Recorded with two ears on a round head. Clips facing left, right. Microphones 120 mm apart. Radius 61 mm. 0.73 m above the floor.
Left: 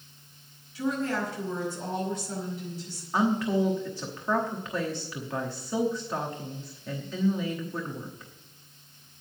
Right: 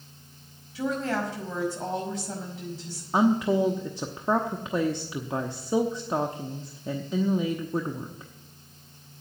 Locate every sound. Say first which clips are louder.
0.8 s a woman speaking: right 1 dB; 70° right (ahead or behind), 5 m
3.1 s a woman speaking: right 3 dB; 20° right (ahead or behind), 0.9 m